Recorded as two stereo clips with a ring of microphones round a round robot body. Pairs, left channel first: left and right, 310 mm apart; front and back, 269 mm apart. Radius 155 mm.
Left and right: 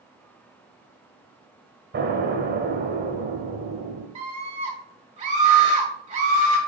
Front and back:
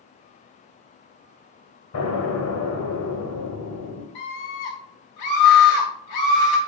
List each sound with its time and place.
1.9 s an explosion: 35° right, 1.6 m
4.2 s a scream: 20° right, 1.3 m